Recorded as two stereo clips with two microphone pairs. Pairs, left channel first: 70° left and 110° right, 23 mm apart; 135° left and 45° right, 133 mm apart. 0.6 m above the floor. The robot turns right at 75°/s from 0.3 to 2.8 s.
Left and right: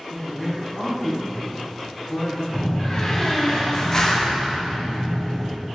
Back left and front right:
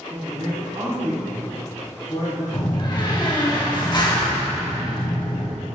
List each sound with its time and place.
0.1 s a man speaking: 30° right, 1.8 m; by 2.4 s 135° left, 1.8 m
2.5 s a door slam: 95° left, 0.8 m; by 5.5 s 115° left, 0.8 m